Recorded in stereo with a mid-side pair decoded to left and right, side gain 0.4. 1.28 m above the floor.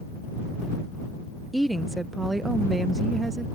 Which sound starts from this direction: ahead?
A woman speaking, at 1.5 s.